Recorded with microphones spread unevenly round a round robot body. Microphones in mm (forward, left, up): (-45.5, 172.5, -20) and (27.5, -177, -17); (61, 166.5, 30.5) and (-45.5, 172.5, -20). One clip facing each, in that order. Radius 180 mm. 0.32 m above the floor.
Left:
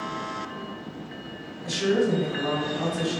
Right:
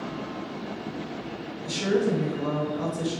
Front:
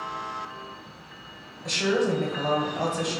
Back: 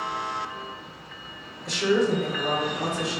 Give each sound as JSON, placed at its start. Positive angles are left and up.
{"t": 1.6, "sound": "a woman speaking", "azimuth_deg": 20, "distance_m": 2.5}